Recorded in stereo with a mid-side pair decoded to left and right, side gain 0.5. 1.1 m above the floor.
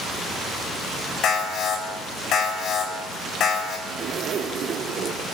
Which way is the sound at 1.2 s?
65° left.